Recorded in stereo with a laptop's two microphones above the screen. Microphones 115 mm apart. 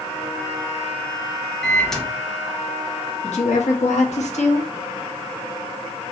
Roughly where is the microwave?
Centre.